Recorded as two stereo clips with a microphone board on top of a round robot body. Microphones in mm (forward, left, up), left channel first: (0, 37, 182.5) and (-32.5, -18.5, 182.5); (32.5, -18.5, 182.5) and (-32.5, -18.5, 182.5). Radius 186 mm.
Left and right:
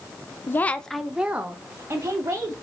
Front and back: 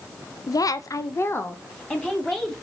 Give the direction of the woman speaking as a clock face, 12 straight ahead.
12 o'clock.